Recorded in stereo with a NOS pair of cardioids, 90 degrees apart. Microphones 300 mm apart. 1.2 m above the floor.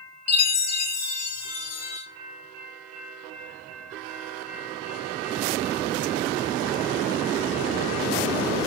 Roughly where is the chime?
Ahead left.